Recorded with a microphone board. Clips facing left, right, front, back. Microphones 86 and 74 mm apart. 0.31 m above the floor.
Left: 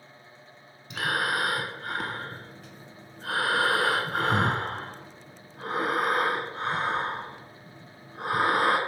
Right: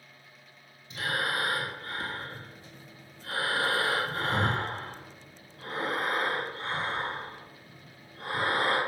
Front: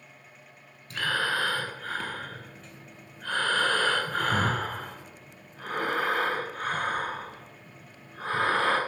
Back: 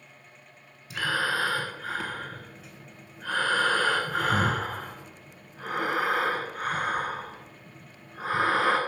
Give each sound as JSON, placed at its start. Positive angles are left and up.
{"t": 0.9, "sound": "breathing", "azimuth_deg": 95, "distance_m": 0.9}